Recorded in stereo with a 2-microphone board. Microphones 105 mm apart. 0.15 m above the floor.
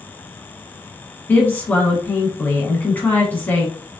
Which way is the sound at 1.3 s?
15° left (ahead or behind).